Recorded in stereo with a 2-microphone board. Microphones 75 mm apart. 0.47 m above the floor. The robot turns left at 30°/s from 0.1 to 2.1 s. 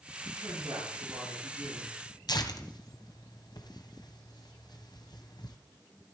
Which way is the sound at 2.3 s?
70° left (ahead or behind).